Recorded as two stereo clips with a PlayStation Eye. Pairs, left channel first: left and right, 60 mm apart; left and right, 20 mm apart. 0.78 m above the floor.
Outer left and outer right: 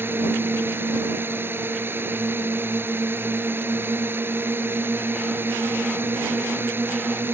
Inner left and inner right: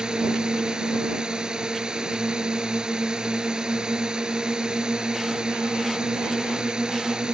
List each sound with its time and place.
0.0 s a drone: 35° right (ahead or behind)